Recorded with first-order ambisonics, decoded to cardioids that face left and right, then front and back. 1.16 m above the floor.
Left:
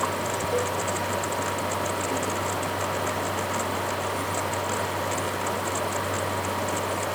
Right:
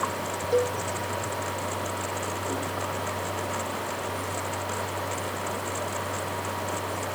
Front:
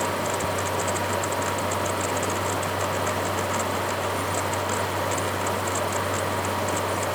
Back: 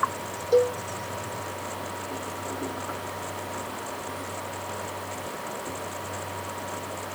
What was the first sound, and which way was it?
A cowbell, 165° right.